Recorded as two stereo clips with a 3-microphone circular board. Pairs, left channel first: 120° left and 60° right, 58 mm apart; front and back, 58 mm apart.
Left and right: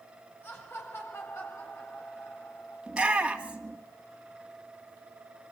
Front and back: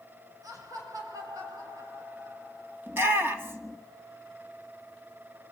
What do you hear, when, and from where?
0.4 s laughter: 170° left, 6 m; by 2.8 s 150° left, 5.5 m
2.9 s a shout: 130° right, 2.5 m